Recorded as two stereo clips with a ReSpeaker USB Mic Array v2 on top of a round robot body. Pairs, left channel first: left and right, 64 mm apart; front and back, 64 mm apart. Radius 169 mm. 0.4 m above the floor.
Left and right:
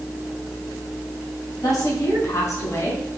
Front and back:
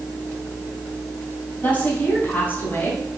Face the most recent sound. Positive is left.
turn(degrees=55)